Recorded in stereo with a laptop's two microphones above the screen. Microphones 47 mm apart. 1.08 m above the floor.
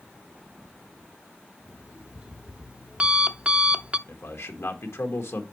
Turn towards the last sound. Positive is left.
turn(degrees=80)